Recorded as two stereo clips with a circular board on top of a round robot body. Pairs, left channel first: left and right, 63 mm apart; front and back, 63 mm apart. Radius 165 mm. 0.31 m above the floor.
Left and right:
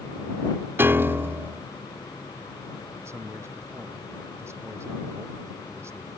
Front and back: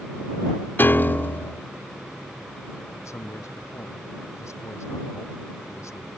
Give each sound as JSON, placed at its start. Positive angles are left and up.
{"t": 0.8, "sound": "a piano", "azimuth_deg": -50}
{"t": 3.0, "sound": "a man speaking", "azimuth_deg": -45}